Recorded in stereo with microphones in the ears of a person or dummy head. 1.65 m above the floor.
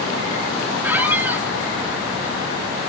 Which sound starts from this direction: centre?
A squeak, at 0.8 s.